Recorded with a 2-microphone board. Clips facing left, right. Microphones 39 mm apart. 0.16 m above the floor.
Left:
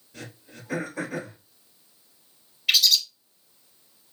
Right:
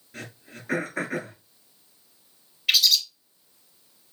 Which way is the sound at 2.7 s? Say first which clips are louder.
Even; 5° right (ahead or behind).